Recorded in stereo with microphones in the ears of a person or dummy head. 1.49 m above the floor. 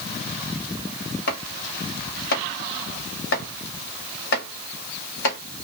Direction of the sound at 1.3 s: 55° left (ahead or behind).